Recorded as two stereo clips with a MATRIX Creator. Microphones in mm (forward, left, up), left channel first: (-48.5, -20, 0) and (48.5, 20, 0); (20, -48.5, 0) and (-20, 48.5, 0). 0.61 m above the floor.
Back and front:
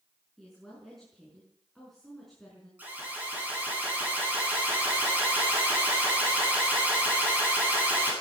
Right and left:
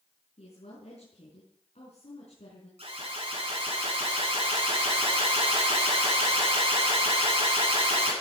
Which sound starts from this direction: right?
A woman speaking, at 0.4 s.